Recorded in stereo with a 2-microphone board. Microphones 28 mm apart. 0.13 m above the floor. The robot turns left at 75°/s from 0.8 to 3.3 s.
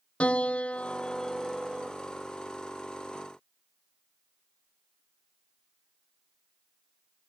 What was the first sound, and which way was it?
A piano, 50° left.